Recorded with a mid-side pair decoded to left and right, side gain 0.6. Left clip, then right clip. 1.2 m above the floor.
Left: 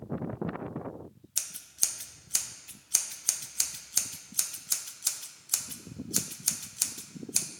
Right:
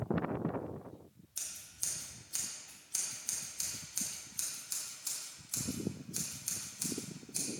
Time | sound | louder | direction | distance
1.4 | scissors | left 10 dB | 55° left | 0.7 m